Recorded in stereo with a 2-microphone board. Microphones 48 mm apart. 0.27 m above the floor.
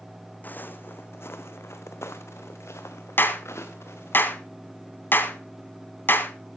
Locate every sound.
0.4 s footsteps: 40° left (ahead or behind), 1.1 m; by 4.2 s 75° left (ahead or behind), 2.5 m
3.2 s a clap: 50° left (ahead or behind), 1.7 m